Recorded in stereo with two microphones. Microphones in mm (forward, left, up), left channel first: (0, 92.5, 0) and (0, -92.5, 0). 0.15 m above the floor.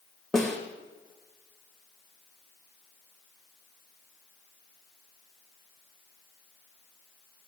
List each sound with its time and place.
0.3 s a snare drum: centre (ahead or behind), 2.5 m